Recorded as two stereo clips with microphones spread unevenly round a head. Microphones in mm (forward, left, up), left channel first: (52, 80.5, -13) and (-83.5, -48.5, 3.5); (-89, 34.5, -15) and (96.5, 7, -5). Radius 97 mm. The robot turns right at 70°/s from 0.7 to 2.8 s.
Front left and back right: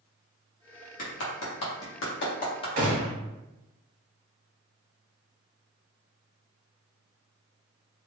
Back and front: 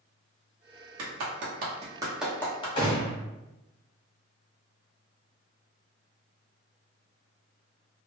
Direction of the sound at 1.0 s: 10° right.